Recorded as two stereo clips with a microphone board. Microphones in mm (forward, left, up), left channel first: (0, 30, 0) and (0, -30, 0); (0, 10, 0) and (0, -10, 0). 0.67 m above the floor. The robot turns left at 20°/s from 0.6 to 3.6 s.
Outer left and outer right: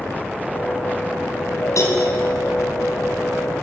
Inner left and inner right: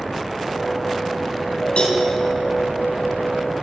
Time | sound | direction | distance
1.8 | a cowbell | 60° left (ahead or behind) | 4.5 m